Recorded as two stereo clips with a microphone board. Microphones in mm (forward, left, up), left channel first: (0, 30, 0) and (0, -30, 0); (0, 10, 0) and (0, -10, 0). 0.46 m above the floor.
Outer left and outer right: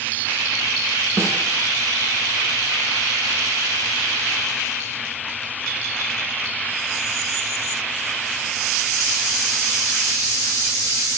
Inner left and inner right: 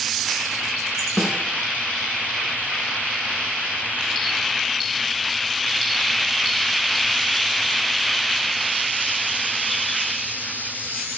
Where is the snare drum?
45° right (ahead or behind), 3.5 m.